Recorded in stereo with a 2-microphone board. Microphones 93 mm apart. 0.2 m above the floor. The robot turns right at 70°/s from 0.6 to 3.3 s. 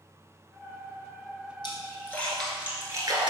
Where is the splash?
55° left (ahead or behind), 0.9 m; by 3.3 s 55° right (ahead or behind), 0.9 m.